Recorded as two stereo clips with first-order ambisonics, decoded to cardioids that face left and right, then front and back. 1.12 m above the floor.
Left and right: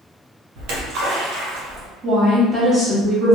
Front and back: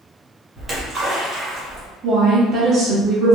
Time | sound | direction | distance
0.6 | a splash | 100° right | 0.9 m
2.0 | a woman speaking | 135° right | 0.5 m